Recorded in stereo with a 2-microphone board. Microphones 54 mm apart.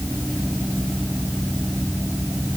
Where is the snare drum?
I don't hear a snare drum.